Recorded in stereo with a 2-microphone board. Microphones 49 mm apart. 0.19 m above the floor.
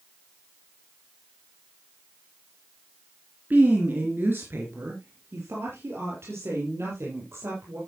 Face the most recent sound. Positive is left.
turn(degrees=-70)  # may be behind; listen again after turning